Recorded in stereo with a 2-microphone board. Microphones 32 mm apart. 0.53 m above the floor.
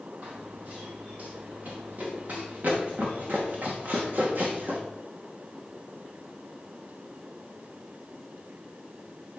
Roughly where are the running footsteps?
Right.